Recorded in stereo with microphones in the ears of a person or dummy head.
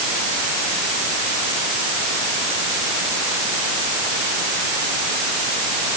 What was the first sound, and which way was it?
Only background noise.